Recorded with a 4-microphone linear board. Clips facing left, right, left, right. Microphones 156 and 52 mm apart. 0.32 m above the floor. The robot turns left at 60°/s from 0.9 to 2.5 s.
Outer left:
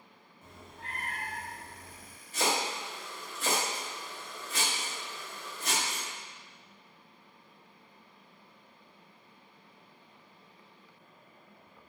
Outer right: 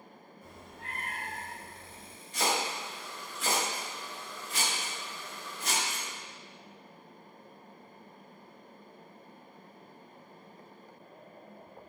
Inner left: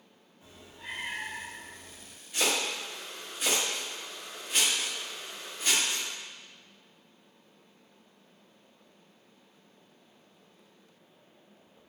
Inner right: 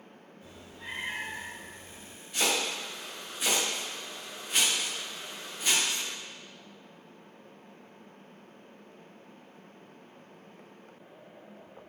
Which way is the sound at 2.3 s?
5° left (ahead or behind).